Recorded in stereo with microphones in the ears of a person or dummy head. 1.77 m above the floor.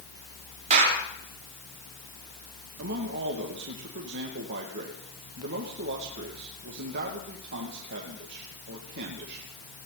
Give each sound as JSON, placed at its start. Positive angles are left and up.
{"t": 0.7, "sound": "a clap", "side_deg": -35, "distance_m": 4.5}
{"t": 2.8, "sound": "a man speaking", "side_deg": -60, "distance_m": 2.0}